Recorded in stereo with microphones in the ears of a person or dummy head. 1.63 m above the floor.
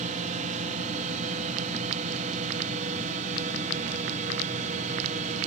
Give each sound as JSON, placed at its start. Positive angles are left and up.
{"t": 0.0, "sound": "a drone", "side_deg": -45}